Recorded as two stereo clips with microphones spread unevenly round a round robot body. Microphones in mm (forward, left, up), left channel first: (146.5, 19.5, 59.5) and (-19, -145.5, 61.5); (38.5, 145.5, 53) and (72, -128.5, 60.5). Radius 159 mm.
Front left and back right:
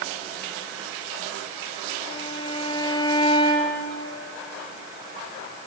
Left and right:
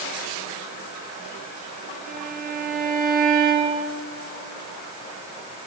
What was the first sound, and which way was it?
A violin, 25° right.